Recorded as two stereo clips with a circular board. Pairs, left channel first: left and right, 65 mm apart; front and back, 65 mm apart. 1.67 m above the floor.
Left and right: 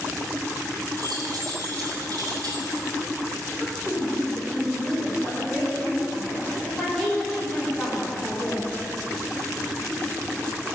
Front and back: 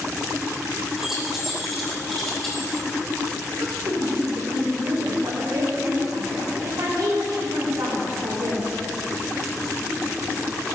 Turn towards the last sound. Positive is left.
turn(degrees=170)